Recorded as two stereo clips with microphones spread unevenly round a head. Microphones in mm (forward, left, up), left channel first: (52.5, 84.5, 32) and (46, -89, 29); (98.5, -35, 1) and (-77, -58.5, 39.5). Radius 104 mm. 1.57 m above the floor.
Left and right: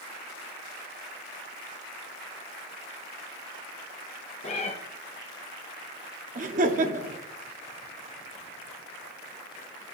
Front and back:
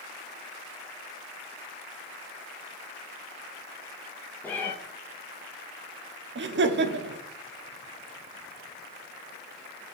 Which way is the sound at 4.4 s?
105° left.